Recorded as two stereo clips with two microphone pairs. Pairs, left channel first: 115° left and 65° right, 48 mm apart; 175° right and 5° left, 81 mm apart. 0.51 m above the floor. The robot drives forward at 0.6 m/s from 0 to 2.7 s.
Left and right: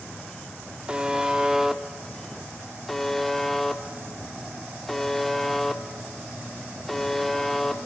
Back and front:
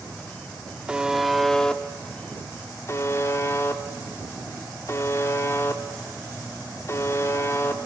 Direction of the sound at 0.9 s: 40° right.